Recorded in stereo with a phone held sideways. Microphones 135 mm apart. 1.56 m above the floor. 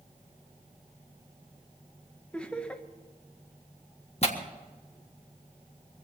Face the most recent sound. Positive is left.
turn(degrees=50)  # may be behind; listen again after turning